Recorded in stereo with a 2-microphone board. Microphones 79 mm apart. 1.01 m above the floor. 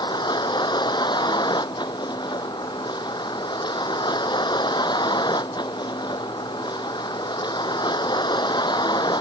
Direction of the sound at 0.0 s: 70° left (ahead or behind).